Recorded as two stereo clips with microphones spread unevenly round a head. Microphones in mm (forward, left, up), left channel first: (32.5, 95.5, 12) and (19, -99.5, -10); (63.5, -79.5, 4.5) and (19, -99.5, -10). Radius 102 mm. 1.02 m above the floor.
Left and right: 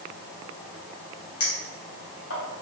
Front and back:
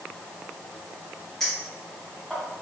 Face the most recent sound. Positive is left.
turn(degrees=115)